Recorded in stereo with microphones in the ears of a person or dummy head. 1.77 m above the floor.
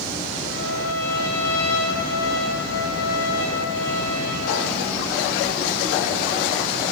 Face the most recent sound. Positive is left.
turn(degrees=65)  # may be behind; listen again after turning